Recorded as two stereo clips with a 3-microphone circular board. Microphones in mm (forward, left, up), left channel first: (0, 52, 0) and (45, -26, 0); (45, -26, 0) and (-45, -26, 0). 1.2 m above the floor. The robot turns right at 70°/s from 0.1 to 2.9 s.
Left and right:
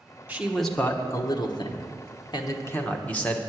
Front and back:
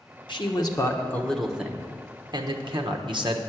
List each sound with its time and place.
0.3 s a man speaking: 10° left, 1.0 m; by 3.4 s 170° right, 1.0 m